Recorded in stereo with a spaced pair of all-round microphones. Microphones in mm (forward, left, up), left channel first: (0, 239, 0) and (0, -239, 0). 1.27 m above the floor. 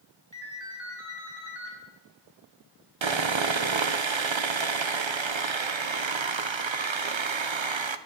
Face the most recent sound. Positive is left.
turn(degrees=-70)  # may be behind; listen again after turning